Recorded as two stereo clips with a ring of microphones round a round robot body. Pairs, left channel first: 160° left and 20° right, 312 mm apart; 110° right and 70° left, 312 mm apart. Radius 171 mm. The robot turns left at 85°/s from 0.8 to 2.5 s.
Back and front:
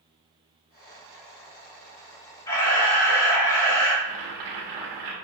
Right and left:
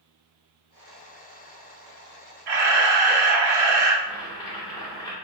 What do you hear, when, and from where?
2.5 s a camera shutter: 80° left, 0.9 m; by 3.9 s 75° left, 0.9 m
4.0 s boiling: 35° right, 1.1 m